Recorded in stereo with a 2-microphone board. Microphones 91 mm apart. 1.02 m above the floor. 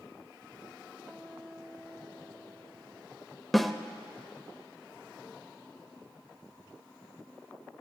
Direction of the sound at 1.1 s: 10° left (ahead or behind).